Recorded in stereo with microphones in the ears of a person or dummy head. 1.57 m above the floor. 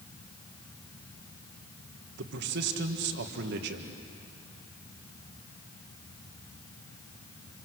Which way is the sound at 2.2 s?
65° right (ahead or behind).